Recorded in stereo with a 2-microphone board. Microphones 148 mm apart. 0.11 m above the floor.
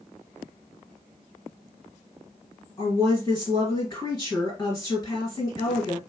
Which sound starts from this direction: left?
A woman speaking, at 2.8 s.